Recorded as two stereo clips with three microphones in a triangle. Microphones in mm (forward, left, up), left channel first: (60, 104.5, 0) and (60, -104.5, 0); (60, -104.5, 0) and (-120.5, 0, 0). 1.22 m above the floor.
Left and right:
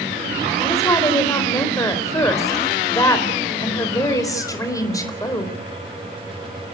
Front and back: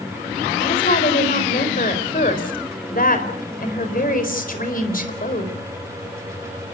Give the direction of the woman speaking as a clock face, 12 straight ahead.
11 o'clock.